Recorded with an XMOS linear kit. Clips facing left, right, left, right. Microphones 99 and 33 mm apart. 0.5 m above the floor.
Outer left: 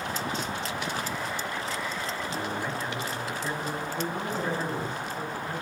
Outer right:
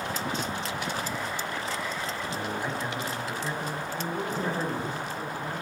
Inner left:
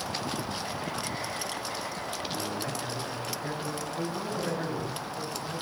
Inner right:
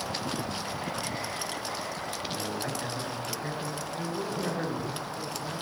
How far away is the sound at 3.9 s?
About 4 m.